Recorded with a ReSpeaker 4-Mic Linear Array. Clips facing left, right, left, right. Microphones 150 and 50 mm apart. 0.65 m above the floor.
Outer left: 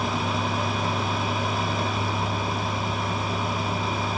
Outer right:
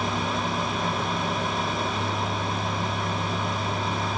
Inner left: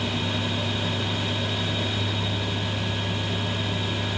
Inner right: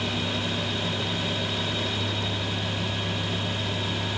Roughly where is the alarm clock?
I don't hear an alarm clock.